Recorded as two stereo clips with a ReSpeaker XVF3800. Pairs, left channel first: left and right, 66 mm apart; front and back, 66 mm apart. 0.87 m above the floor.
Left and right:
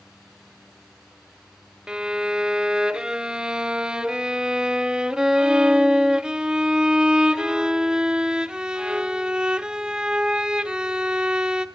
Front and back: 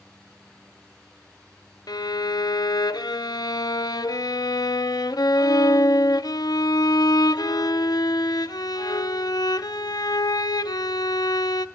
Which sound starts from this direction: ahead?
A violin, at 1.9 s.